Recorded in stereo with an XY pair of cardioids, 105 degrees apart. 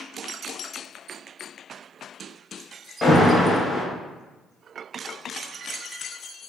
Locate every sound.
3.0 s an alarm: 30° left, 0.9 m